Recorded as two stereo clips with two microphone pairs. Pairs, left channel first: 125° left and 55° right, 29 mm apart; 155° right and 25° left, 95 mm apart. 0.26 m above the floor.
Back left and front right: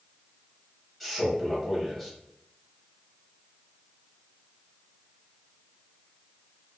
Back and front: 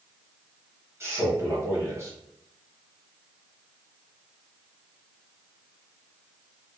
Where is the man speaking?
40° left, 1.1 m.